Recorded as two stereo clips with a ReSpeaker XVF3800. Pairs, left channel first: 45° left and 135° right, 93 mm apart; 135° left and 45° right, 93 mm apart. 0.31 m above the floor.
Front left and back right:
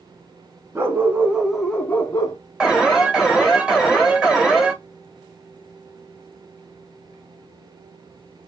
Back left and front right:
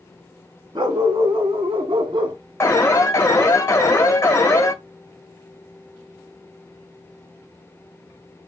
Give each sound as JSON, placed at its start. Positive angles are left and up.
{"t": 0.8, "sound": "a dog barking", "azimuth_deg": -75, "distance_m": 1.2}
{"t": 2.6, "sound": "an alarm", "azimuth_deg": 150, "distance_m": 1.3}